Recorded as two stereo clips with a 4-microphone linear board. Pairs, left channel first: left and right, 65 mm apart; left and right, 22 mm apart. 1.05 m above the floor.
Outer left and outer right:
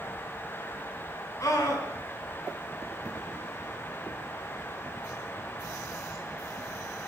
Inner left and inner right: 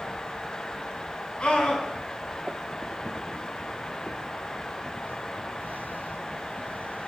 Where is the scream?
60° left (ahead or behind), 6.5 m.